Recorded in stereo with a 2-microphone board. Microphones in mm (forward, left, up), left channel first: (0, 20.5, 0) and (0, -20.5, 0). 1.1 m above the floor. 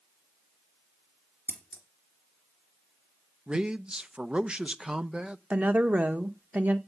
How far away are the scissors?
About 3 m.